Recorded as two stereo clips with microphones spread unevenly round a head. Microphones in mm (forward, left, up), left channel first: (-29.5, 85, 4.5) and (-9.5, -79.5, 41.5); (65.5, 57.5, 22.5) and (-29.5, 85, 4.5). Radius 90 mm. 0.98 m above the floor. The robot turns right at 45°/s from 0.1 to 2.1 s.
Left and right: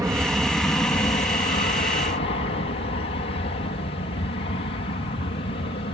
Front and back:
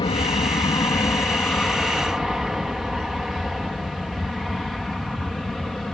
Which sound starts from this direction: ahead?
An aircraft, at 0.0 s.